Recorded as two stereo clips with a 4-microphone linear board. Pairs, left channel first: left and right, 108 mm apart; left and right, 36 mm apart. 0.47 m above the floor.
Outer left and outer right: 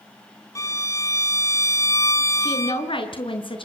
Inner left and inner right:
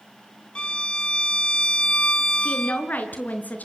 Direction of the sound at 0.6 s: 30° left (ahead or behind).